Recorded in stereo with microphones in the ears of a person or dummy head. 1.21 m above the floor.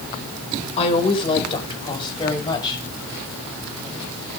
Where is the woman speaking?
30° left (ahead or behind), 4 m; by 2.8 s 20° left (ahead or behind), 5.5 m.